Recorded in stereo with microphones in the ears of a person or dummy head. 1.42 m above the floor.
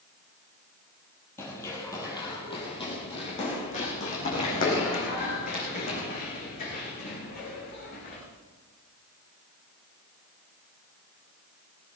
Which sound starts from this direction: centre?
Running footsteps, at 1.4 s.